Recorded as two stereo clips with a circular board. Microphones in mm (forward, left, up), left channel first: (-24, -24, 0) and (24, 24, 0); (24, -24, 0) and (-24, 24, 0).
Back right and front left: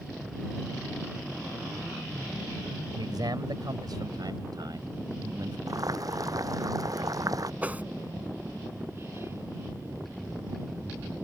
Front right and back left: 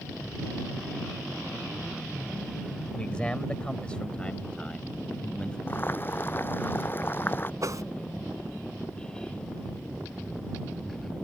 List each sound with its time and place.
3.0 s a man speaking: 30° left
5.7 s boiling: 15° left
7.6 s a whoosh: 110° left